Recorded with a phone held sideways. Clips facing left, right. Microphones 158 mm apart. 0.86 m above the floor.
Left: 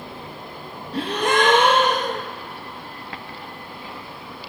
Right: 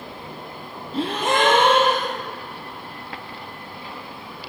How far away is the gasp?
About 3.5 m.